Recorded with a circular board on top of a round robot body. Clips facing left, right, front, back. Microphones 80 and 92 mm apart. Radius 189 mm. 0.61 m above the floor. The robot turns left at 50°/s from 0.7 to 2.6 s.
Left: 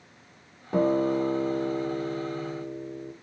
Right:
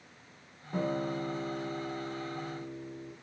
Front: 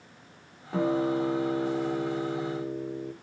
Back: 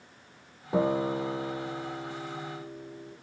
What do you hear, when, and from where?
0.7 s a guitar: 110° left, 1.7 m; by 3.1 s 15° left, 1.7 m